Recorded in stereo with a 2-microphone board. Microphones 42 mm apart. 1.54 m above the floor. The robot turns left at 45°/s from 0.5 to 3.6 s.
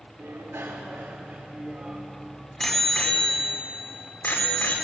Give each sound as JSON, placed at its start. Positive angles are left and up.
{"t": 0.2, "sound": "a bicycle bell", "side_deg": -75, "distance_m": 3.0}